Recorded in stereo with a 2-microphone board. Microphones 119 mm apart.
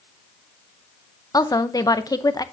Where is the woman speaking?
30° left (ahead or behind), 0.8 m.